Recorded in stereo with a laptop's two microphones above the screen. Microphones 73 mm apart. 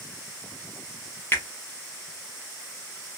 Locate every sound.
1.3 s a finger snap: 30° left (ahead or behind), 0.7 m